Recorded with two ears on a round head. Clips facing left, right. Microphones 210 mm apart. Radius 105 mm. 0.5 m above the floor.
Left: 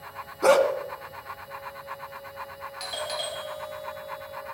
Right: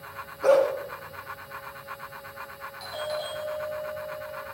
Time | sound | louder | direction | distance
0.4 | a dog barking | even | 70° left (ahead or behind) | 2.5 m
2.8 | a doorbell | right 2 dB | 40° left (ahead or behind) | 2 m